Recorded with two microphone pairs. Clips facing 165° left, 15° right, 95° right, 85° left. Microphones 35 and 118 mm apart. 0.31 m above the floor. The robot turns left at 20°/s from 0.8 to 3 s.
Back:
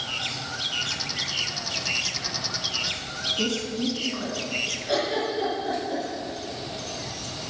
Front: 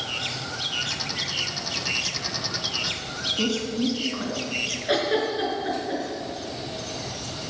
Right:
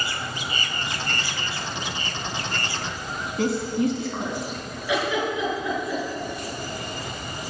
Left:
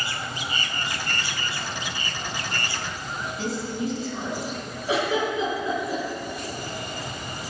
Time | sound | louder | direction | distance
3.4 | a woman speaking | front 3 dB, right 7 dB | 95° right | 3 m
4.9 | a giggle | front 3 dB, left 1 dB | 30° left | 4.5 m